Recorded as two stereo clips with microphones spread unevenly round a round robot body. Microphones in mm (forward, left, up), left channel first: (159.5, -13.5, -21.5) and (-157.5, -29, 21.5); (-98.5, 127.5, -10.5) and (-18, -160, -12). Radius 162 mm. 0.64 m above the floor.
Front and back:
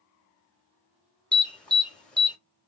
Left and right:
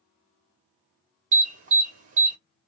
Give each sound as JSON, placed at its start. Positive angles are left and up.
{"t": 1.3, "sound": "an alarm", "azimuth_deg": -60, "distance_m": 0.9}